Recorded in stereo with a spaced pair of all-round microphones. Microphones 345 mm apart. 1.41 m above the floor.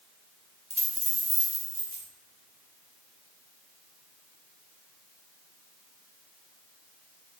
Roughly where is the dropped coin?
Centre.